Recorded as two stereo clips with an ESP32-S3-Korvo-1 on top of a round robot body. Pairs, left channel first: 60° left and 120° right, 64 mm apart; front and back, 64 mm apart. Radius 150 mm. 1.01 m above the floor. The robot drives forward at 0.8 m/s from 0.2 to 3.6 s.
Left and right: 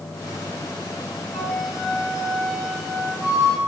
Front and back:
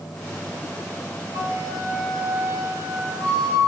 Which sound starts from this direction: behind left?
A flute, at 1.3 s.